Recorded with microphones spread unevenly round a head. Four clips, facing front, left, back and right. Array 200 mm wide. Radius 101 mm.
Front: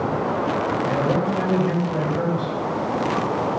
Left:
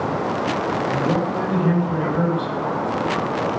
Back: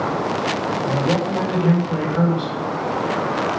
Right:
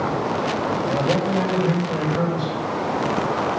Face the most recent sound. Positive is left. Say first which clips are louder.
# right 1 dB, back 2 dB
turn(degrees=180)